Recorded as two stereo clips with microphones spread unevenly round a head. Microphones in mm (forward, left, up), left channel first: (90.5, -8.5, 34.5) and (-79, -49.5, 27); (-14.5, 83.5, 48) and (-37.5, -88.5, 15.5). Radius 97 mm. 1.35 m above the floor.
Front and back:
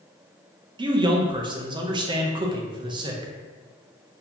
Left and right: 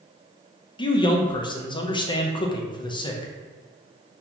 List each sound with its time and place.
0.8 s a man speaking: 145° left, 0.6 m